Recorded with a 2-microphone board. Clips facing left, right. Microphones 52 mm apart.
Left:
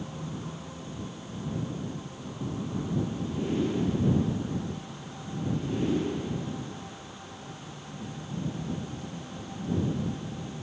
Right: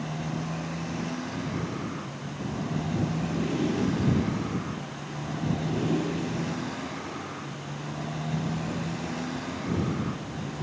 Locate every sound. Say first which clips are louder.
0.0 s a motorcycle: right 5 dB; 70° right (ahead or behind); by 10.6 s 90° right